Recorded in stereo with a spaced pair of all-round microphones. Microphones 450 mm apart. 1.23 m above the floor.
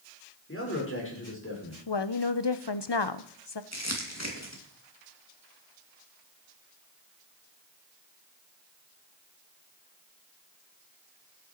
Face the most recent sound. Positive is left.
turn(degrees=35)  # may be behind; listen again after turning